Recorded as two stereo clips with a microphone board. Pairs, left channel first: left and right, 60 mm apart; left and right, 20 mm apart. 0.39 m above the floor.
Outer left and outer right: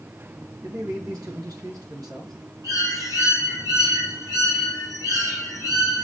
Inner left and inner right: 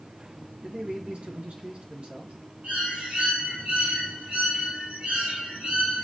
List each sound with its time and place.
0.6 s a man speaking: 75° right (ahead or behind), 5 m
2.6 s a bird: 85° right, 7.5 m